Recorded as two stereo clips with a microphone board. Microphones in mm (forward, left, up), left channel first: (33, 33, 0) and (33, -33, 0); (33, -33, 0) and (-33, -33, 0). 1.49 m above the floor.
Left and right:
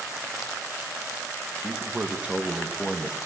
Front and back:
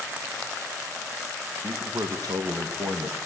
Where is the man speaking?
155° right, 2 m; by 3.2 s 170° right, 2.5 m.